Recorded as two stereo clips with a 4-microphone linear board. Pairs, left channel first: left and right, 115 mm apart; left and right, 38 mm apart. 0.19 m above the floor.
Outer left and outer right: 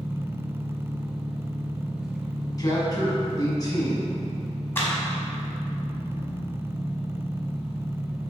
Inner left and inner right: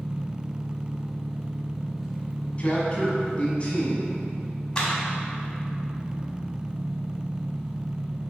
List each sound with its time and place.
0.0 s an engine running: 5° right (ahead or behind), 0.8 m
2.6 s a man speaking: 30° left (ahead or behind), 1.2 m
4.8 s a clap: 20° left (ahead or behind), 1.0 m